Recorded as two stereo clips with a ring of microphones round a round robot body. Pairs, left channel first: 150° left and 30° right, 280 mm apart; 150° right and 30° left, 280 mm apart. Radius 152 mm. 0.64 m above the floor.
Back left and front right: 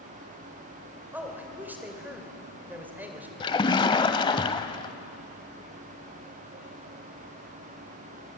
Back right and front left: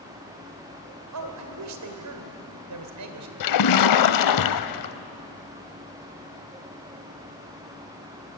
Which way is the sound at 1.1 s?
55° left.